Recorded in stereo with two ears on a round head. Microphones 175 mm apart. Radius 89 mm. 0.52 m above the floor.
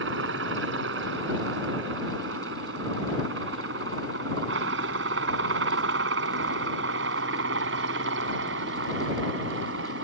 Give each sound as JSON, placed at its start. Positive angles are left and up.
{"t": 0.0, "sound": "a helicopter", "side_deg": -75}